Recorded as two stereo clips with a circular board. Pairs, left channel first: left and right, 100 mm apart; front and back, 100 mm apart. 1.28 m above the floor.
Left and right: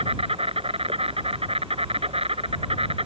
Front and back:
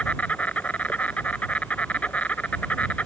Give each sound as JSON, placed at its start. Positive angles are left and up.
{"t": 0.0, "sound": "an insect", "azimuth_deg": -75}